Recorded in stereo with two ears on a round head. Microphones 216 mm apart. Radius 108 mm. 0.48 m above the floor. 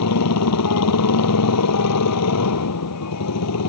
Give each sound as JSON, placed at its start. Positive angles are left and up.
{"t": 0.0, "sound": "a motorcycle", "side_deg": 80}